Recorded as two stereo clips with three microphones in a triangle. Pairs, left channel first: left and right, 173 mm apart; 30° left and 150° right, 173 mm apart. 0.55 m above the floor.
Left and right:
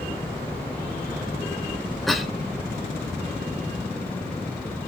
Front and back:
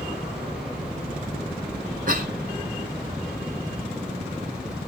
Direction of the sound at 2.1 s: Straight behind.